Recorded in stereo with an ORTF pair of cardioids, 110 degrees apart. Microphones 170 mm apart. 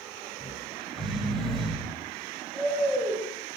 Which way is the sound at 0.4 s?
Straight ahead.